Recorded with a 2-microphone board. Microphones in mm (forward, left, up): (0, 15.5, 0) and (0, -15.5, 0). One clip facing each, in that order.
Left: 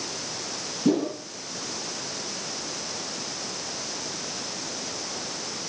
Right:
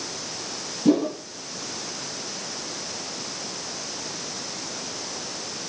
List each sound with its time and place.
0.8 s a whoosh: 5° right (ahead or behind), 4 m